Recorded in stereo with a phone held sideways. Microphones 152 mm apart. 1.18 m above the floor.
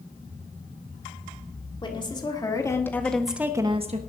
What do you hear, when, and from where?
1.8 s a woman speaking: 30° left (ahead or behind), 2.5 m; by 4.0 s 55° right (ahead or behind), 1.0 m